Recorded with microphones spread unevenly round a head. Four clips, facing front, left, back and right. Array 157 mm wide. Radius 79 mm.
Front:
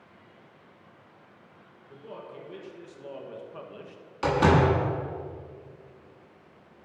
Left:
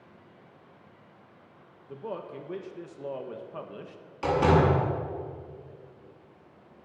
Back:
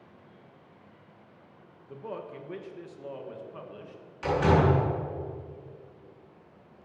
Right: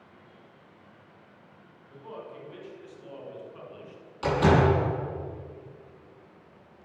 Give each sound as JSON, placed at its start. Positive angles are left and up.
{"t": 1.9, "sound": "a man speaking", "azimuth_deg": 120, "distance_m": 1.8}
{"t": 4.2, "sound": "a door slam", "azimuth_deg": 10, "distance_m": 8.0}